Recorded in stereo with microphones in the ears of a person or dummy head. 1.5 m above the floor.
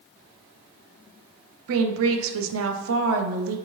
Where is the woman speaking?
75° right (ahead or behind), 0.6 m.